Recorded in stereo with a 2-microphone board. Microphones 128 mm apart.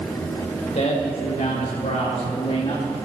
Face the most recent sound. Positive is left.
turn(degrees=55)  # may be behind; listen again after turning